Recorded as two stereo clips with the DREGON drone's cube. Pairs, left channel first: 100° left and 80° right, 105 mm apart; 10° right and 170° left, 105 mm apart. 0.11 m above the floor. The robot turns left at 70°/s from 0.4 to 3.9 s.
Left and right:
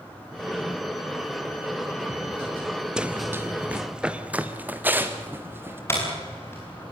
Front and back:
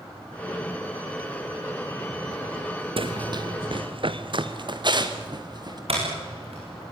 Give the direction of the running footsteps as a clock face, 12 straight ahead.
5 o'clock.